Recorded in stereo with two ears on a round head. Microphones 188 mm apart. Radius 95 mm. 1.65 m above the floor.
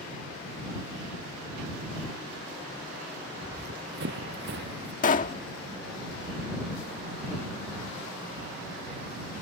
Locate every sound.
3.4 s running footsteps: 50° right (ahead or behind); by 4.9 s 55° right (ahead or behind)
5.0 s a pop: 40° left (ahead or behind)